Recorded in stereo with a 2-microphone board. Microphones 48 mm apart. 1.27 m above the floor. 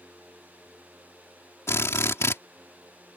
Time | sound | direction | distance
1.7 | a drill | 65° left (ahead or behind) | ?